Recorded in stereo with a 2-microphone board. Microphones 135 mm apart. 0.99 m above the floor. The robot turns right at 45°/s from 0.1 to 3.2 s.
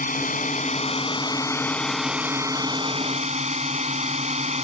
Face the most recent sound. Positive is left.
turn(degrees=-125)